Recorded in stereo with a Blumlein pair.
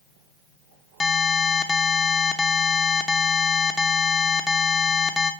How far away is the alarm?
About 0.9 m.